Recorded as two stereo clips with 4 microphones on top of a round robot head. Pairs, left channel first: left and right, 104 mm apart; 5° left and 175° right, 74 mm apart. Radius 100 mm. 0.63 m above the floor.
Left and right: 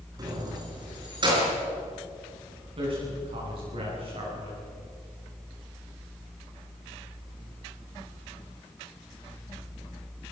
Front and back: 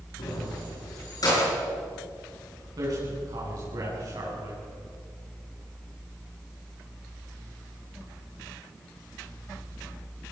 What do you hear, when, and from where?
0.2 s keys jangling: 35° right, 5.5 m; by 1.5 s 45° right, 7 m
2.8 s a man speaking: 130° right, 9 m